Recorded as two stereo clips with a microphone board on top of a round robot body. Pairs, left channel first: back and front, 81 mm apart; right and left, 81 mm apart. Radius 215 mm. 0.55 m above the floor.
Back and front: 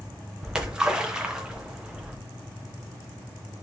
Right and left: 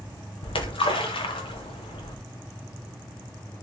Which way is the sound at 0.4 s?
80° right.